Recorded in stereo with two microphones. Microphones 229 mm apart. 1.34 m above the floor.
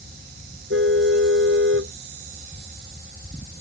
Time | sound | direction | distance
0.7 | a car horn | 60° right (ahead or behind) | ?